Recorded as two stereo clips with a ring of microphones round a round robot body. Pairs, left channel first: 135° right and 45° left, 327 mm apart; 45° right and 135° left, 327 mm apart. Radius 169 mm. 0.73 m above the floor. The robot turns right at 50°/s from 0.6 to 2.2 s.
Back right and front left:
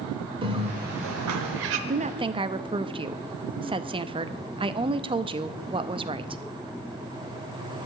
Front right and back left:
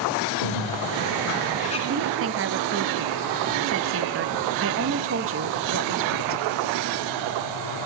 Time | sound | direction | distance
0.4 | a bird | 30° right | 1.0 m
1.9 | a woman speaking | 95° left | 0.6 m